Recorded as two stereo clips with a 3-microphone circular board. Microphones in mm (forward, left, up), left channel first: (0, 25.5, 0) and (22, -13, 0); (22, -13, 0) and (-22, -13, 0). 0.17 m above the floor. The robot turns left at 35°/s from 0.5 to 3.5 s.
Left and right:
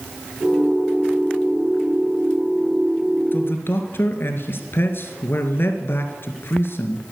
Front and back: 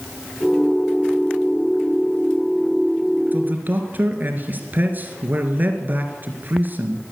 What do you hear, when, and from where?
3.3 s a man speaking: 145° left, 2.5 m; by 7.0 s 140° left, 2.5 m